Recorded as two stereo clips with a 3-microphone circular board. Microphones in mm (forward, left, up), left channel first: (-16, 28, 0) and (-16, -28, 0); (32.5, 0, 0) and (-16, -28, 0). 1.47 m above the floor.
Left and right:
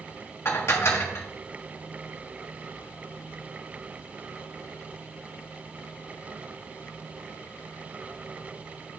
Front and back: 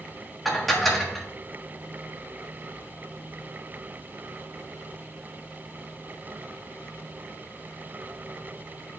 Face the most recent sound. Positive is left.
turn(degrees=120)